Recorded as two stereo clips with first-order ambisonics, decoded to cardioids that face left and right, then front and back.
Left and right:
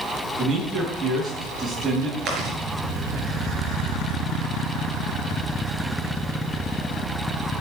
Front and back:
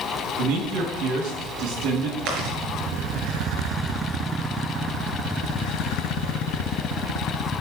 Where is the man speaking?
155° right, 4.5 m.